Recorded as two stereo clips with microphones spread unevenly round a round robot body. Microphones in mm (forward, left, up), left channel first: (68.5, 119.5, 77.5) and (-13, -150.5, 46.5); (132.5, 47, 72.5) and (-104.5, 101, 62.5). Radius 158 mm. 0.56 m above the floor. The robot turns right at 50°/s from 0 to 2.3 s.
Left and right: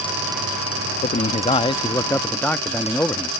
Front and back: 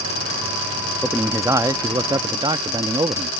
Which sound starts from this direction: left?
A man speaking, at 1.0 s.